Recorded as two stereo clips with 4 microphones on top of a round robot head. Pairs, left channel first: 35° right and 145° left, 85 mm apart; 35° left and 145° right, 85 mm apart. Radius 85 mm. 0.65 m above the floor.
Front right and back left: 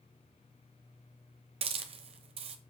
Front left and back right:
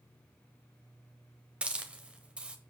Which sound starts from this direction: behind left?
A hiss, at 1.6 s.